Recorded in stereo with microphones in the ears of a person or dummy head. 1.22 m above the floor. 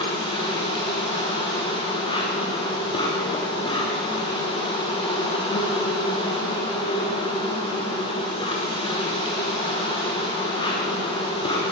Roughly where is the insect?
Left.